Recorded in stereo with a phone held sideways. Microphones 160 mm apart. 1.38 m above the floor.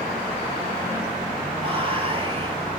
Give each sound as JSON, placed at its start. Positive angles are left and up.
{"t": 1.6, "sound": "whispering", "side_deg": -35, "distance_m": 2.0}